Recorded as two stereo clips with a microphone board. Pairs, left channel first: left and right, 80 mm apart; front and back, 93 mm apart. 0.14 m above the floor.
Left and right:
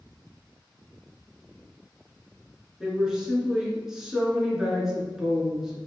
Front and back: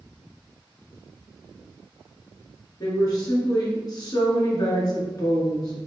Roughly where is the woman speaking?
Ahead.